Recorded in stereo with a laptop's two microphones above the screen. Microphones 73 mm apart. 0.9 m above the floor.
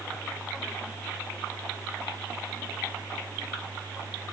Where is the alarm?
I don't hear an alarm.